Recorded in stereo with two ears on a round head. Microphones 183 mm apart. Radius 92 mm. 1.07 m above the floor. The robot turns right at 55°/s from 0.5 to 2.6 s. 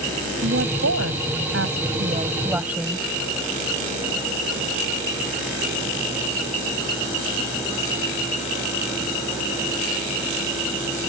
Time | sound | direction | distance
0.4 | a woman speaking | 125° right | ?